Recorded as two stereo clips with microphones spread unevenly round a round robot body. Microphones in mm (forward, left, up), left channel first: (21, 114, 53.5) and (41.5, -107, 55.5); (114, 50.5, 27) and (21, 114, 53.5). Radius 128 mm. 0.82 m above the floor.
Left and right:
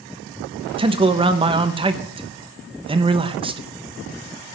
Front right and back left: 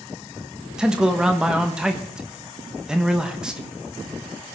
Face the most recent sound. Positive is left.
turn(degrees=-105)